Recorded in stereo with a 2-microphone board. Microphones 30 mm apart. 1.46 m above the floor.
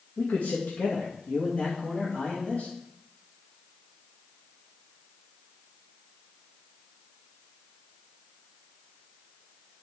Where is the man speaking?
60° left (ahead or behind), 1.6 m; by 2.7 s 35° left (ahead or behind), 2.5 m.